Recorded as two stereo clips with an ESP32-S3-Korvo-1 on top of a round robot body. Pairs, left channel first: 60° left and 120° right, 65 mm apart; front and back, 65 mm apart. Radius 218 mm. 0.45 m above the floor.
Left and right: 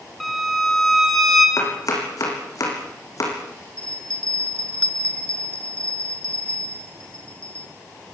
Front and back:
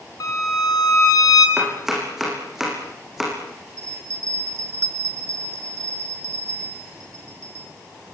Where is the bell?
140° left, 1.0 m.